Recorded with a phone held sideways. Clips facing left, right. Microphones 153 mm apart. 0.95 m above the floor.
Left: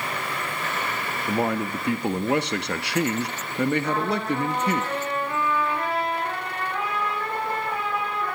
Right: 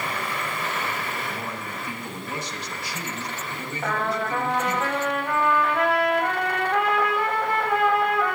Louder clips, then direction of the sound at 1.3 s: Left 9 dB; 65° left (ahead or behind).